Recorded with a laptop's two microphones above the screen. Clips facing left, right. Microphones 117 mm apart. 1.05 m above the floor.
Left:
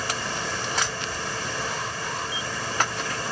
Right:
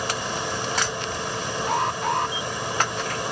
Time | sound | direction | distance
0.0 | a fan | 20° right (ahead or behind) | ?
1.7 | an alarm | 70° right (ahead or behind) | ?